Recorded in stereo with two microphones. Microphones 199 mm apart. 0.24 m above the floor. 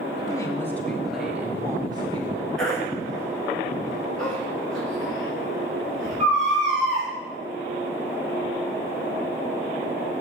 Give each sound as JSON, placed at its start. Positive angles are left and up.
{"t": 0.2, "sound": "a woman speaking", "side_deg": 20, "distance_m": 1.3}
{"t": 2.6, "sound": "a baby crying", "side_deg": 5, "distance_m": 4.5}